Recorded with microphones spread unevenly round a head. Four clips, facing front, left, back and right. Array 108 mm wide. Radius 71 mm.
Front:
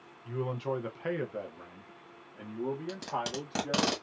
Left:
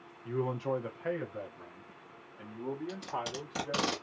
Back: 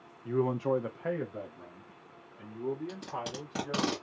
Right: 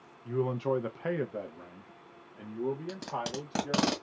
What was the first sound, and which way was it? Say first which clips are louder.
A man speaking: right 3 dB, back 5 dB; 165° left.